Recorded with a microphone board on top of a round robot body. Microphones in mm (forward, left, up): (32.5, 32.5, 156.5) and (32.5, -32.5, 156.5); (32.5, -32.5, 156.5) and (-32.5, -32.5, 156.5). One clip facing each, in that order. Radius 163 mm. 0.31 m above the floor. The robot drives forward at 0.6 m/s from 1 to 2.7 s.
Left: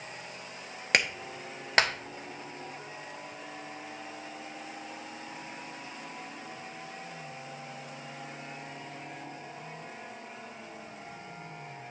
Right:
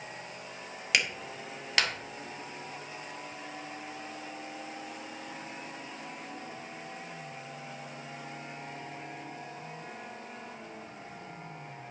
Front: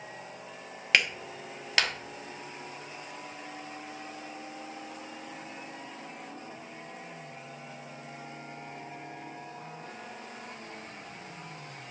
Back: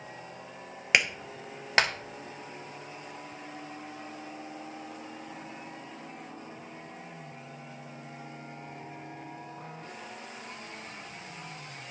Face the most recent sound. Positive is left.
turn(degrees=145)